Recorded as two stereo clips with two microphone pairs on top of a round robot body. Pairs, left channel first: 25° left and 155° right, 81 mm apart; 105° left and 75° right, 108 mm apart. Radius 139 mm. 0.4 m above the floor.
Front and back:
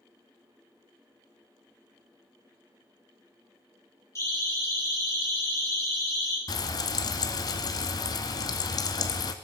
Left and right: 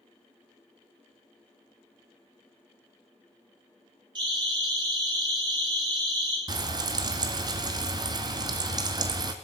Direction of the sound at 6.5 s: 15° right.